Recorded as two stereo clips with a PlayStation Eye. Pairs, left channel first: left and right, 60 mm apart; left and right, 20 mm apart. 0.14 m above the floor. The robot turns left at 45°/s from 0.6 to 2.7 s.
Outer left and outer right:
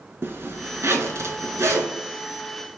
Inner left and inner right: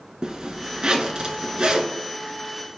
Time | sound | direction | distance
0.2 | a zipper | 60° right | 0.6 m